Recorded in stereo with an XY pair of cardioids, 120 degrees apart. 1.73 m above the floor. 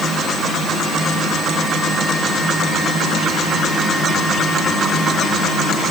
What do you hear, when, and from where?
Only background noise.